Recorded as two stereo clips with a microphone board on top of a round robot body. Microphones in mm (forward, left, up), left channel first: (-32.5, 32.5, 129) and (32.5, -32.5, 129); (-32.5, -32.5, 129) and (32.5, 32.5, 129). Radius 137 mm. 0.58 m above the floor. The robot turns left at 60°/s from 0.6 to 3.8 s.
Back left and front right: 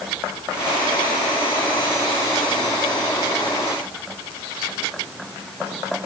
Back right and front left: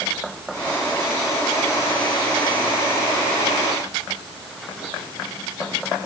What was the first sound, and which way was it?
Only background noise.